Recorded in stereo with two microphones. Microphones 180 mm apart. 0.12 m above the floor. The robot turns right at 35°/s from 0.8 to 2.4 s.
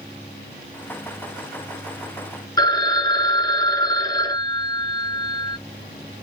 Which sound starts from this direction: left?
A phone ringing, at 2.6 s.